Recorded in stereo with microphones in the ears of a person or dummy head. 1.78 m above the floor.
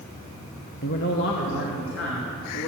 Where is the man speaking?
50° left (ahead or behind), 0.9 m; by 2.7 s 65° left (ahead or behind), 3 m.